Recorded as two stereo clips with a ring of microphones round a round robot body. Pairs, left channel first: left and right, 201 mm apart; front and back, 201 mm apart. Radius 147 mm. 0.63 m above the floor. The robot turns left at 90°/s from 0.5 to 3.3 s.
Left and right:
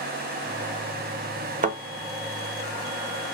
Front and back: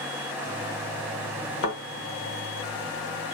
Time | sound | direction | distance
1.6 | a thud | 35° right | 0.8 m